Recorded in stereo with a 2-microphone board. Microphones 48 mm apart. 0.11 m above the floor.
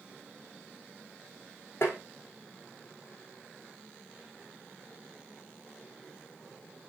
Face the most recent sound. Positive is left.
turn(degrees=55)  # may be behind; listen again after turning